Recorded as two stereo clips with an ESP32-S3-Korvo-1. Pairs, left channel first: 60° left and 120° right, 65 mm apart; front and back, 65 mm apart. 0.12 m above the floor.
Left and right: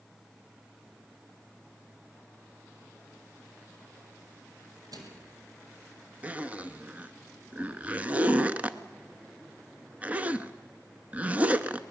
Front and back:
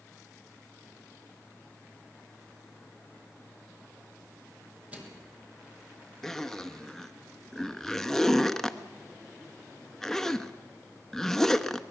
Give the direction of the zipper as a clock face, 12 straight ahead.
3 o'clock.